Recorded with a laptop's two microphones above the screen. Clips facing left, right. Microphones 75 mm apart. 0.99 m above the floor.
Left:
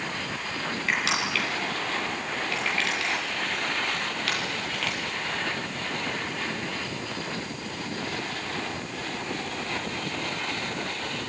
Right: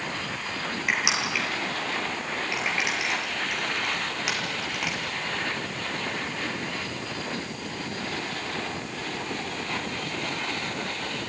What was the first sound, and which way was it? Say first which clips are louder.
Crushing: even; 15° right (ahead or behind).